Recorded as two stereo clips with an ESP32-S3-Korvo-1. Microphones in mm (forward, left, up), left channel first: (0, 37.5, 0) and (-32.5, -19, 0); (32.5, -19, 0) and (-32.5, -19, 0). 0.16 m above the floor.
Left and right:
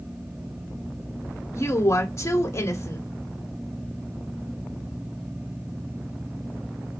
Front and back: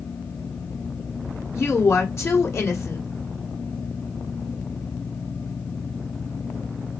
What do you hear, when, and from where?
1.6 s a woman speaking: 35° left, 1.8 m